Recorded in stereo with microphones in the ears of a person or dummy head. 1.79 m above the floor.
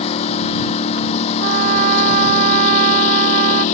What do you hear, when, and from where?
0.0 s a lawn mower: 40° left (ahead or behind); by 3.8 s 45° left (ahead or behind)
1.4 s a trumpet: 45° right (ahead or behind)